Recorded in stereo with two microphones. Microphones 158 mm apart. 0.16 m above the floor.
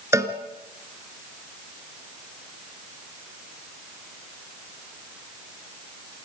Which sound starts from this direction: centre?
A cowbell, at 0.1 s.